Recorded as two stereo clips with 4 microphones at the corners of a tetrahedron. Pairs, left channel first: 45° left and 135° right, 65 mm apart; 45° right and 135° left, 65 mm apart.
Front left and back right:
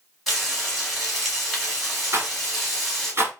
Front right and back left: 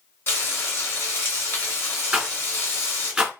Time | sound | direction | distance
0.3 | frying | 45° right | 1.5 m
2.1 | a rattle | 145° right | 1.5 m